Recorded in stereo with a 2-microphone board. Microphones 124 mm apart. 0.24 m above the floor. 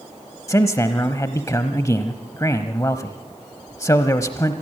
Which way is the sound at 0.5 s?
25° left (ahead or behind).